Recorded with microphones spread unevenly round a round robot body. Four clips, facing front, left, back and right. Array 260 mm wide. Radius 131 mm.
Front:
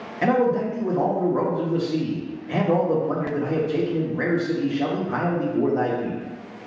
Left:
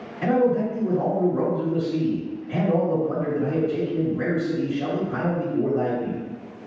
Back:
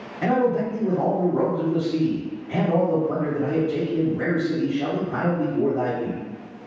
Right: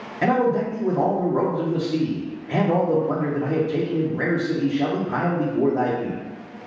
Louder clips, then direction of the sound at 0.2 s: Even, front 1 dB; 60° right.